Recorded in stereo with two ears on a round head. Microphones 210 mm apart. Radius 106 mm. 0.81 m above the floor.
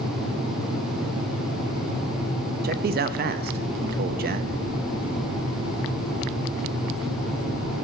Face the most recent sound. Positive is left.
turn(degrees=-40)  # may be behind; listen again after turning